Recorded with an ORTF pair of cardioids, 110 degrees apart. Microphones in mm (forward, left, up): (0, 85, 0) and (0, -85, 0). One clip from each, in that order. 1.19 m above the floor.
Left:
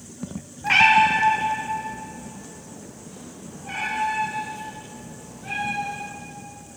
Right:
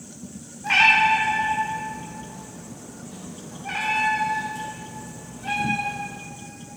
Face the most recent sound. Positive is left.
turn(degrees=-45)